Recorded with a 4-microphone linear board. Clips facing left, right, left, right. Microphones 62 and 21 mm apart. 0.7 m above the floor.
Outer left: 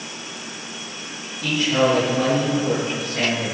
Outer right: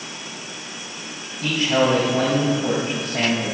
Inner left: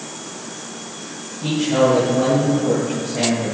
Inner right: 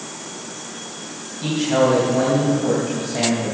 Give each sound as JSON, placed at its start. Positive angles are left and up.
{"t": 1.4, "sound": "a man speaking", "side_deg": -50, "distance_m": 3.5}